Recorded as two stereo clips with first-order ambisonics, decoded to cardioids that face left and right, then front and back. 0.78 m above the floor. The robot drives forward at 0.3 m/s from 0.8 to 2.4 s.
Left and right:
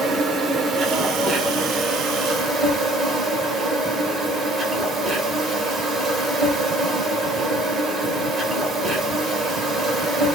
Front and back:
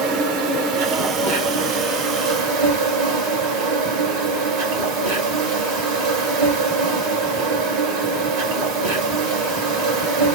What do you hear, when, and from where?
0.0 s an insect: 155° right, 1.3 m; by 10.4 s 160° right, 1.8 m